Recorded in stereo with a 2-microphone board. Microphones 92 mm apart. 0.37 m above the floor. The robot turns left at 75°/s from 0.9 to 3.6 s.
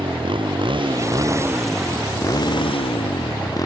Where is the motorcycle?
65° right (ahead or behind); by 3.7 s 40° left (ahead or behind).